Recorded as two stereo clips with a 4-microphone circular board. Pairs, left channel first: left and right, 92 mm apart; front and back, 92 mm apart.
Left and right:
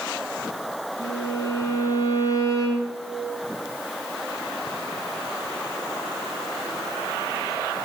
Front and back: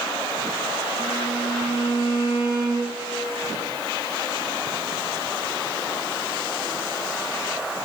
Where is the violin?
40° left, 5 m.